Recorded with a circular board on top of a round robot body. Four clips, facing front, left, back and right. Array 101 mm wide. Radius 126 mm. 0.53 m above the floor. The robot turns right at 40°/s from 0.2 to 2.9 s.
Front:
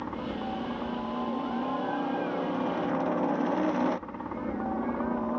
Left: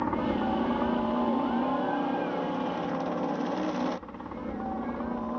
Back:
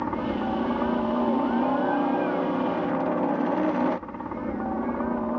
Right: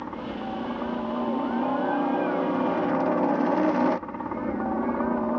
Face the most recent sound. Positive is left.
turn(degrees=-105)